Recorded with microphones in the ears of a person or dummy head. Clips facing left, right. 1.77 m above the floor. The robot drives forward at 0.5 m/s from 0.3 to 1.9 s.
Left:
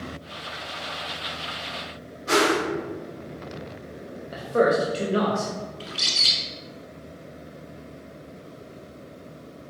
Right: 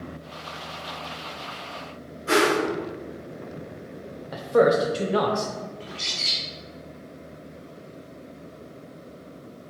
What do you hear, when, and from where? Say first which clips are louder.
2.3 s a whoosh: right 1 dB; 40° right (ahead or behind), 1.3 m
4.3 s a man speaking: right 2 dB; 55° right (ahead or behind), 0.5 m
5.8 s a bird: left 1 dB; 40° left (ahead or behind), 0.8 m